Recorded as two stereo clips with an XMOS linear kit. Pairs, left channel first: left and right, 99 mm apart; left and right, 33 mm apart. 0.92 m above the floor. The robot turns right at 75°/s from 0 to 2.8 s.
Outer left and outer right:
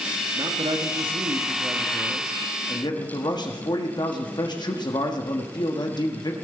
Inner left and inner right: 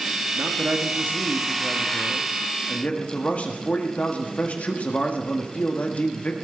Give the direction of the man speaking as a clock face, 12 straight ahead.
5 o'clock.